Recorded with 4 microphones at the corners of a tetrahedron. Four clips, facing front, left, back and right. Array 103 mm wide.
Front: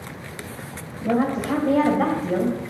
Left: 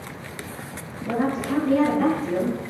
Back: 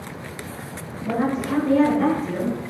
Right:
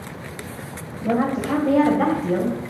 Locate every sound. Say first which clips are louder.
1.0 s a woman speaking: right 3 dB, front 2 dB; 55° right, 2.5 m; by 2.6 s 40° right, 3 m